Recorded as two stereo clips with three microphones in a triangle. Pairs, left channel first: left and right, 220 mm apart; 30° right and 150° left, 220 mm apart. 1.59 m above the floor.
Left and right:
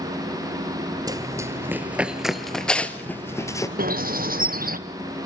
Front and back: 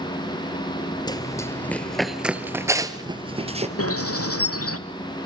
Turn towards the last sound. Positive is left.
turn(degrees=-35)